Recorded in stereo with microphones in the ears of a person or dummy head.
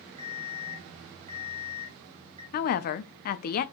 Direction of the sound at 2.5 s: 45° left (ahead or behind).